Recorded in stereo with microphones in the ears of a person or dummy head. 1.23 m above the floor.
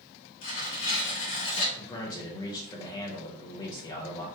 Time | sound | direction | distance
0.4 | tearing paper | 65° left (ahead or behind) | 1.4 m
1.8 | a man speaking | 20° left (ahead or behind) | 0.8 m